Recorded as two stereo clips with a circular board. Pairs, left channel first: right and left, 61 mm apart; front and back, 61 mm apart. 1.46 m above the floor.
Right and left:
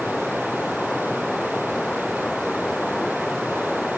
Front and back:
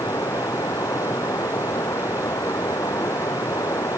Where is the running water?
5° right.